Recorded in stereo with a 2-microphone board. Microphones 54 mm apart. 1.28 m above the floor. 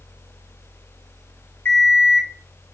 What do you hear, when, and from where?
1.6 s an alarm clock: 35° left (ahead or behind), 1.1 m